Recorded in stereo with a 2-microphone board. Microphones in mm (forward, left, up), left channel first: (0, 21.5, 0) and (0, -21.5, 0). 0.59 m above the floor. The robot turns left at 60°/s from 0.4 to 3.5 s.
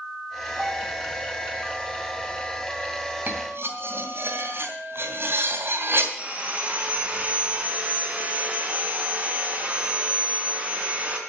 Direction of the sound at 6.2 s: 30° right (ahead or behind).